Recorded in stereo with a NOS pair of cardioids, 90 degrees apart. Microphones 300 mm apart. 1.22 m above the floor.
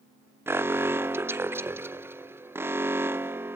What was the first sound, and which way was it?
An alarm, 10° right.